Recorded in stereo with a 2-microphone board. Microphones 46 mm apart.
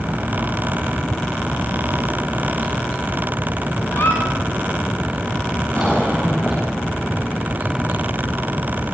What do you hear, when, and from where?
3.9 s a squeak: 60° left (ahead or behind), 5.5 m
5.8 s a cough: 30° left (ahead or behind), 7 m